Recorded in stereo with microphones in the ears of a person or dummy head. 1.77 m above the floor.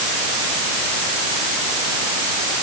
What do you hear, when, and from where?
Only background noise.